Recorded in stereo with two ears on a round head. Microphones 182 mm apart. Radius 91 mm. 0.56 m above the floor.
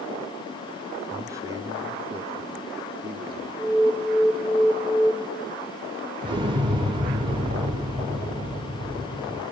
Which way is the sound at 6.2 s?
25° right (ahead or behind).